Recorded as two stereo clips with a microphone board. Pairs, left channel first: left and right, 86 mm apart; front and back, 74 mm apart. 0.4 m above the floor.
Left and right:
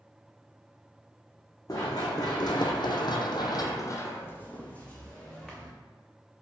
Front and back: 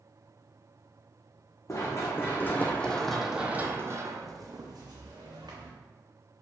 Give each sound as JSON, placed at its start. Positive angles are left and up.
{"t": 1.7, "sound": "running footsteps", "azimuth_deg": 45, "distance_m": 1.3}